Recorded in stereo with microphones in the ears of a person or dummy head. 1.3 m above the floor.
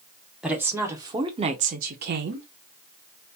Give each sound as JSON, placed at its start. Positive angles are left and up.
{"t": 0.4, "sound": "a woman speaking", "side_deg": -5, "distance_m": 1.0}